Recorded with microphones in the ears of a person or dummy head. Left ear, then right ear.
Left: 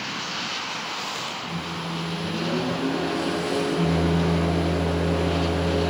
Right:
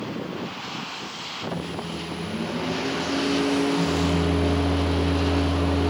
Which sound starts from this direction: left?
A microwave, at 1.5 s.